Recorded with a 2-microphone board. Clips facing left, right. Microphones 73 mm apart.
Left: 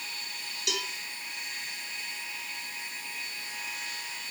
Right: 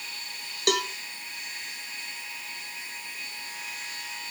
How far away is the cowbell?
About 1.2 m.